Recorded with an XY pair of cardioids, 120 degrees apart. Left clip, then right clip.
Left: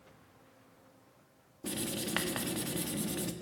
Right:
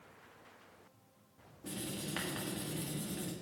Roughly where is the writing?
Ahead left.